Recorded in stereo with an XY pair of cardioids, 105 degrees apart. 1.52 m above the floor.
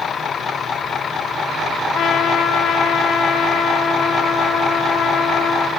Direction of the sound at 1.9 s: 65° left.